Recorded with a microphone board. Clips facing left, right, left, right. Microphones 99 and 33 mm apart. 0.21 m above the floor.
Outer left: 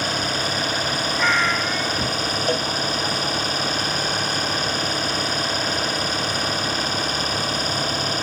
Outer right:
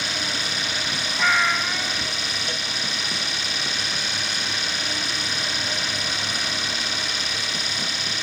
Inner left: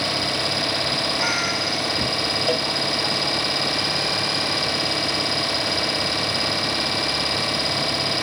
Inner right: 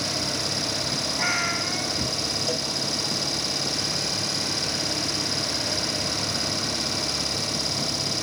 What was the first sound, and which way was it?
An engine running, 40° left (ahead or behind).